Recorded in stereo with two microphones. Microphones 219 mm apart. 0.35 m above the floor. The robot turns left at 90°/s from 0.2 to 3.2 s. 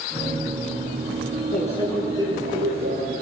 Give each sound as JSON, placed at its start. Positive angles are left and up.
{"t": 1.5, "sound": "a microwave", "azimuth_deg": 45, "distance_m": 6.5}